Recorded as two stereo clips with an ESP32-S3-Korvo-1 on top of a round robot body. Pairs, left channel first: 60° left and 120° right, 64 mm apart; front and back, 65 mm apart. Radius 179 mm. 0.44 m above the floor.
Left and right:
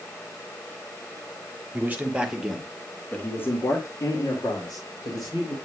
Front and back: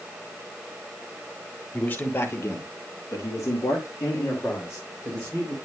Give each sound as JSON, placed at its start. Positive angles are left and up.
{"t": 1.7, "sound": "a man speaking", "azimuth_deg": -60, "distance_m": 2.5}